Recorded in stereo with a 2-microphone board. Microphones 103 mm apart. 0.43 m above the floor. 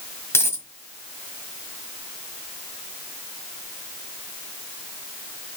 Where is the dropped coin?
25° left (ahead or behind), 1.5 m.